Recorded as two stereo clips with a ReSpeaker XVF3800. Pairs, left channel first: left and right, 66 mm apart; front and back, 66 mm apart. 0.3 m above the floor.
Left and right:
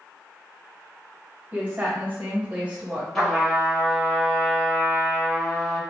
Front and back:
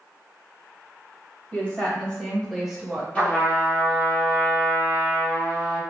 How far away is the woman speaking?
About 1.4 m.